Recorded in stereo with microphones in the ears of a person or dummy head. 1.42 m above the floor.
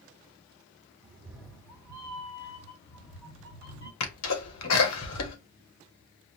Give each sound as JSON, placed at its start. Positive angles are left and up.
{"t": 1.0, "sound": "a cat meowing", "side_deg": -15, "distance_m": 1.1}
{"t": 4.0, "sound": "a sneeze", "side_deg": 75, "distance_m": 1.6}